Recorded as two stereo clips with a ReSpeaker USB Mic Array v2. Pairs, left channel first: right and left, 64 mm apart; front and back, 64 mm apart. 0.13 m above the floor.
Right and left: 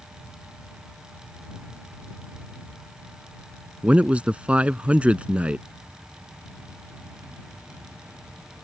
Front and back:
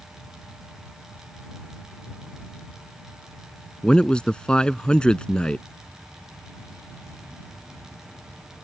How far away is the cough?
No cough in this recording.